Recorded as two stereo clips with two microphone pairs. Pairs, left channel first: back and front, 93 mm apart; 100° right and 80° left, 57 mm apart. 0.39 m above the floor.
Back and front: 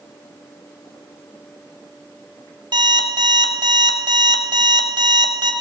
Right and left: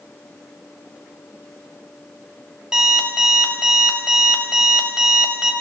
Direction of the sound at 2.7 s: 5° left.